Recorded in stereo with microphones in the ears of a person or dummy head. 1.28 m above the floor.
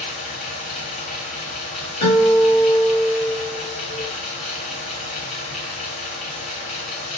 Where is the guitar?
45° left (ahead or behind), 3 m.